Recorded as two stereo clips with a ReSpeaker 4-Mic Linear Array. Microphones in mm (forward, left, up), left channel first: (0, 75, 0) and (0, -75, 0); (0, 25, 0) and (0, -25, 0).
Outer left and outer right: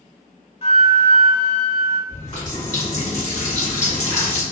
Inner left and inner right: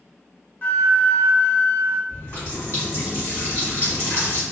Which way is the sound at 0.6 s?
45° left (ahead or behind).